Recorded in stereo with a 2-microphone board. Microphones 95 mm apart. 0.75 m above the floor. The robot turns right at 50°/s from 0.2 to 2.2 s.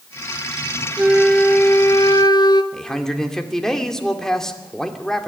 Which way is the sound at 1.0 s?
10° right.